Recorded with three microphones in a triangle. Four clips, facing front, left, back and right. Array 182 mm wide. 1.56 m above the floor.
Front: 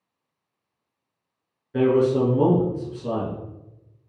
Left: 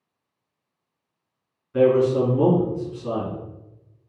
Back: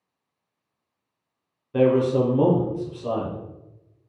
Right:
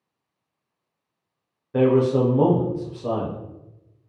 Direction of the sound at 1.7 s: 105° right.